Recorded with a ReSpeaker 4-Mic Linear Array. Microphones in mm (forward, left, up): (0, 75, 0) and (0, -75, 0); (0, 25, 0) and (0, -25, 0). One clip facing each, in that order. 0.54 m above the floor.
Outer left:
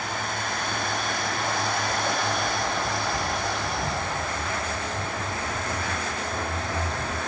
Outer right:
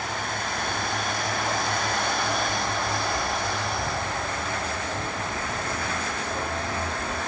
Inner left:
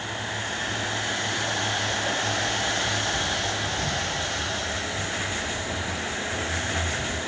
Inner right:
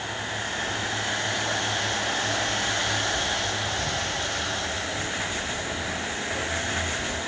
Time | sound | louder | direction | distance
0.6 | footsteps | outer right 1 dB, even | 50° right (ahead or behind) | 0.7 m